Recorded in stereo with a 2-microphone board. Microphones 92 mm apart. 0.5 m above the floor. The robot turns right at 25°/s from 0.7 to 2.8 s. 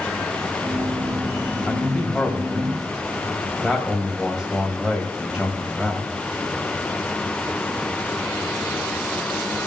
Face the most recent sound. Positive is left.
turn(degrees=-10)  # may be behind; listen again after turning